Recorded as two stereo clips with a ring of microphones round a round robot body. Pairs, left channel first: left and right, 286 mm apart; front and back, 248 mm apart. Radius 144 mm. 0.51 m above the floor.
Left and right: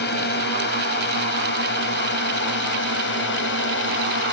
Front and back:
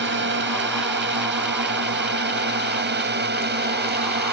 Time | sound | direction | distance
0.0 | a drone | 140° left | ?